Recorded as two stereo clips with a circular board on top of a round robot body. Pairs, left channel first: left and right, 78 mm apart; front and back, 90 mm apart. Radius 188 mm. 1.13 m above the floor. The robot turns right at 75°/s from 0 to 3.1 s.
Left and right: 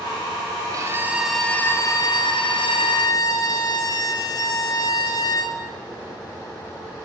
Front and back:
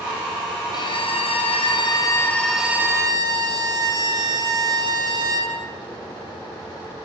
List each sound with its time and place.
0.7 s a violin: 45° right, 4 m; by 5.6 s 135° left, 4 m